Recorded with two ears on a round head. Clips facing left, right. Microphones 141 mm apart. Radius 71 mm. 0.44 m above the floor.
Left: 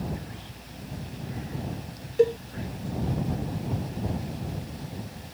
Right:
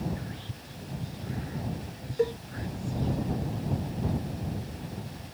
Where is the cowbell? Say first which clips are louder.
Left 6 dB; 30° left (ahead or behind).